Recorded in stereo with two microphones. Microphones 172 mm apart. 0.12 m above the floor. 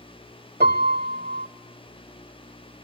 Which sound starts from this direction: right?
A piano, at 0.6 s.